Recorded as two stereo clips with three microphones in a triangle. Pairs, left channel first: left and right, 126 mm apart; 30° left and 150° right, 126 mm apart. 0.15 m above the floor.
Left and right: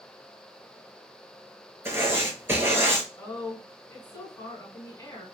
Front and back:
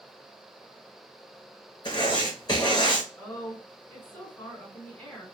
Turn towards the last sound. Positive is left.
turn(degrees=80)